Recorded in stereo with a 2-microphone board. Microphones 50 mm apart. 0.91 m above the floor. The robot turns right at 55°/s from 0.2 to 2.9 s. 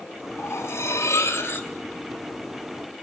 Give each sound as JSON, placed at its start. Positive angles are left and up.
{"t": 0.4, "sound": "cutlery clinking", "azimuth_deg": 65, "distance_m": 1.5}